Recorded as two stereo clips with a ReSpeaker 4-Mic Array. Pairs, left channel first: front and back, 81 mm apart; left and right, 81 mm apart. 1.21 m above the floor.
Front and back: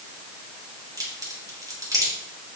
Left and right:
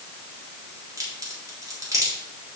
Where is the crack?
140° right, 3 m.